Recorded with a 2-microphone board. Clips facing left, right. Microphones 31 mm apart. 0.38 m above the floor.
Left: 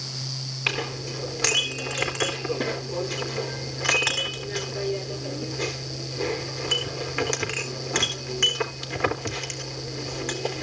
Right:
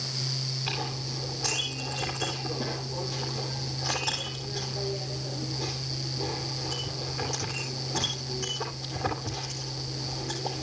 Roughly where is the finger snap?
I don't hear a finger snap.